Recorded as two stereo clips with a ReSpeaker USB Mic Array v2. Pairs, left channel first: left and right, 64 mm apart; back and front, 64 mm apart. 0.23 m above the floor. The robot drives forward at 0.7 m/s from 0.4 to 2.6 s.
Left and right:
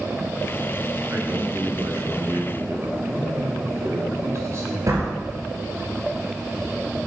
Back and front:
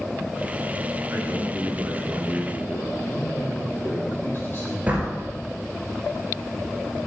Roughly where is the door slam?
Ahead right.